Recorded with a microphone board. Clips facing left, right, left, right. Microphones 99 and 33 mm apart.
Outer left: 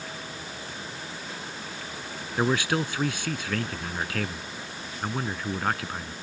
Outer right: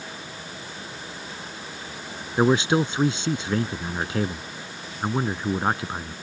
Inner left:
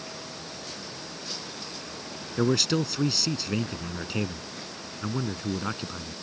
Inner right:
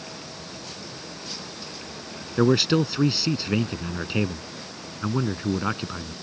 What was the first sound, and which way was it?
A man speaking, 25° right (ahead or behind).